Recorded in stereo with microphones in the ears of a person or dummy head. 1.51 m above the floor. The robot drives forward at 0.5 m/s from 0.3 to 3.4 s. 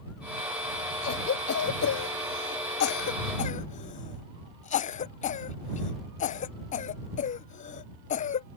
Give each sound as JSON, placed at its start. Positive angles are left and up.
{"t": 1.0, "sound": "a cough", "side_deg": 45}